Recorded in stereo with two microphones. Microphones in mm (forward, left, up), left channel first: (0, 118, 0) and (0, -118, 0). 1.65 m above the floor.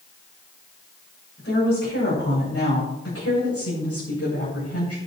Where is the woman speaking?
65° left (ahead or behind), 8 m; by 5.0 s 85° left, 7 m.